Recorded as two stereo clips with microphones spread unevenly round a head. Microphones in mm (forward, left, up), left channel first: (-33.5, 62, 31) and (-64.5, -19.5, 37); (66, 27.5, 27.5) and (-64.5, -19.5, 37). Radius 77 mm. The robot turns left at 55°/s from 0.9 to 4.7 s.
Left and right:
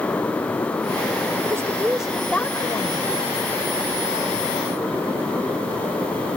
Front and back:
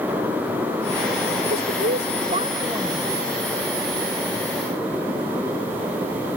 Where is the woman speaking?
165° right; by 3.1 s 105° left.